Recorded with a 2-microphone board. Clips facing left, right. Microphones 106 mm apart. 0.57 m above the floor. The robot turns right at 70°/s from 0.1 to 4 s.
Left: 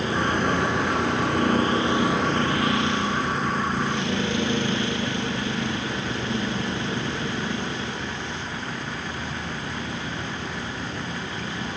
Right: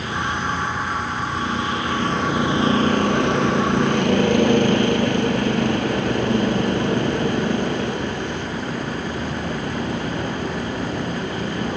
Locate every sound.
0.0 s a vehicle: 30° left; by 11.8 s 55° right